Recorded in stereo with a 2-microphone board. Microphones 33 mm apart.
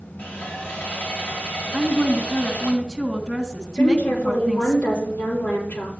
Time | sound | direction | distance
0.2 | sawing | 75° left (ahead or behind) | 4.5 m
1.7 | a woman speaking | 15° left (ahead or behind) | 2.5 m
3.8 | a woman speaking | 65° left (ahead or behind) | 6 m